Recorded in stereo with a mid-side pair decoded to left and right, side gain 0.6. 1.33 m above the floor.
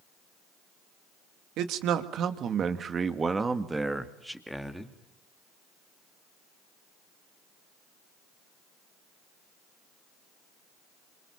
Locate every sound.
1.6 s a man speaking: 65° right, 2.5 m; by 4.9 s 5° left, 3 m